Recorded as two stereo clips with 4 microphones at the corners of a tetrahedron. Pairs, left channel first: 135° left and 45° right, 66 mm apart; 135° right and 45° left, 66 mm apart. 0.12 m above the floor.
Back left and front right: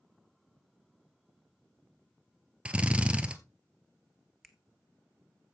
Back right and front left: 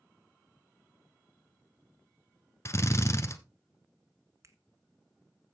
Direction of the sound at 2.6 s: 115° right.